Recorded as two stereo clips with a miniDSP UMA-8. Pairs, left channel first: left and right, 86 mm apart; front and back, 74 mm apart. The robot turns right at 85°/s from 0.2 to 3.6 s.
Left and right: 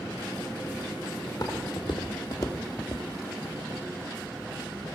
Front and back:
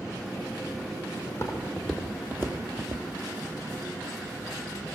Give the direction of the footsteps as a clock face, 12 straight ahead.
11 o'clock.